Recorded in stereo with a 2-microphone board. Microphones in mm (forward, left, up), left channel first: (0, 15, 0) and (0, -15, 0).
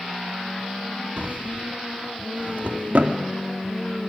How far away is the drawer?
About 1.9 m.